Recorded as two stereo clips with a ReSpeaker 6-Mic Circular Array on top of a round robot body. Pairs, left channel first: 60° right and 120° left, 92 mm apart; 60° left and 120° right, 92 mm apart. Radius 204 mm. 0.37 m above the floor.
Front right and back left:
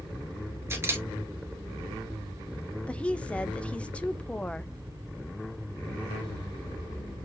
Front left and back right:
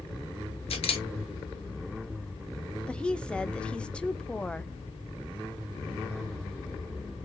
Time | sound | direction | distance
0.7 | a camera shutter | 55° left | 1.7 m
2.9 | a woman speaking | 5° right | 1.0 m